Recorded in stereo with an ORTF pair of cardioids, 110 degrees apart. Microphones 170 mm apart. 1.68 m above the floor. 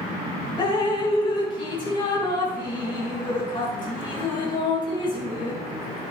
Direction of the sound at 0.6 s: 25° left.